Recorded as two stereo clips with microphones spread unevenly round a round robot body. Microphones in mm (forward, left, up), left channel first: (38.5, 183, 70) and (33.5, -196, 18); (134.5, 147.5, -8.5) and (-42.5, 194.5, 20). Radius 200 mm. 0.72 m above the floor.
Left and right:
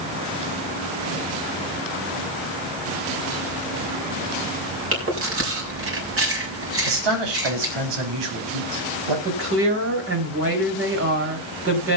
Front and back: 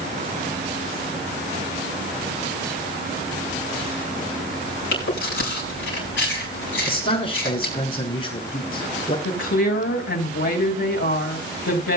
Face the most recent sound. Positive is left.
turn(degrees=-35)